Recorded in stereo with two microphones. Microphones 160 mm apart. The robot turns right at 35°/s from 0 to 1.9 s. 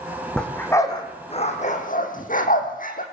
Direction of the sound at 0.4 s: 5° left (ahead or behind).